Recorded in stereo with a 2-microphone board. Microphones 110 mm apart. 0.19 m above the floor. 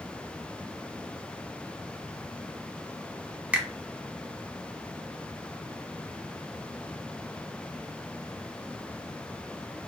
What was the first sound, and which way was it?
A finger snap, 15° right (ahead or behind).